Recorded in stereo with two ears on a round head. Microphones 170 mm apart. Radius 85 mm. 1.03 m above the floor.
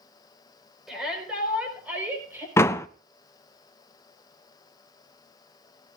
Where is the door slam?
15° left (ahead or behind), 0.5 m.